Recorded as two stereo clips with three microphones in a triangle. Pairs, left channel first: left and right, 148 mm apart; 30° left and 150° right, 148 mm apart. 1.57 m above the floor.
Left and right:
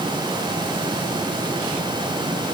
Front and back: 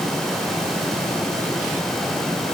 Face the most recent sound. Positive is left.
No sound to turn to.